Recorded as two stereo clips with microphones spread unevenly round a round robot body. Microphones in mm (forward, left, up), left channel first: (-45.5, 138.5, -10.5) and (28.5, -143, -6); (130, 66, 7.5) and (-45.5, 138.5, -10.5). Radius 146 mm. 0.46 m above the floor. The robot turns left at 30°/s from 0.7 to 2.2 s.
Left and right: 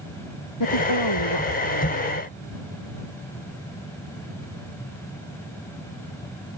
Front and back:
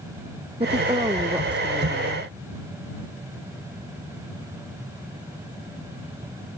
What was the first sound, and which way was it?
A woman speaking, 100° left.